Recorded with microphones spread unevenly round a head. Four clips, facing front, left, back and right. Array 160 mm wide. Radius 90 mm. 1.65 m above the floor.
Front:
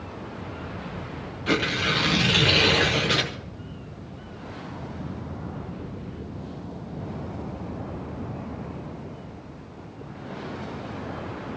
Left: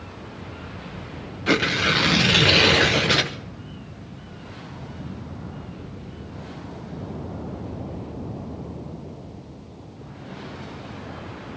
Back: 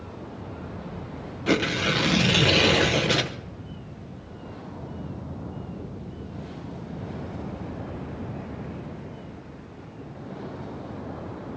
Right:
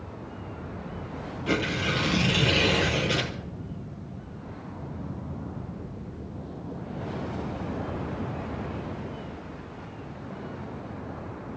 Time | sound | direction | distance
1.5 | tearing paper | 165° left | 0.7 m